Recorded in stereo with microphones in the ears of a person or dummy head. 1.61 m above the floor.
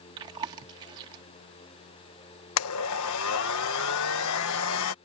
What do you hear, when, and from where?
0.2 s chewing: 25° right (ahead or behind)
2.6 s a blender: 80° left